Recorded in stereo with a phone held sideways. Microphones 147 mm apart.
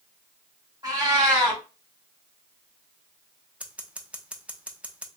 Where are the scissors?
10° right (ahead or behind), 0.6 m.